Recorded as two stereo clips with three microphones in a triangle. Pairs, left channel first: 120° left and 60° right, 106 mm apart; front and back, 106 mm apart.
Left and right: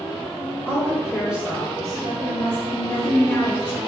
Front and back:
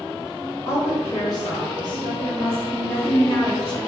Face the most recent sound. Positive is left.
turn(degrees=50)